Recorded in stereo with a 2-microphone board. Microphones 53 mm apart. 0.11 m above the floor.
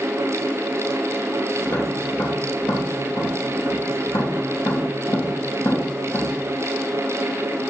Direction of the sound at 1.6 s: 40° left (ahead or behind).